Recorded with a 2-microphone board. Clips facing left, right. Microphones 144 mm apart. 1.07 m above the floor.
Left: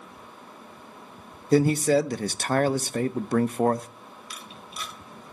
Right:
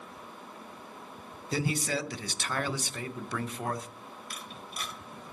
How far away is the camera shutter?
About 2 m.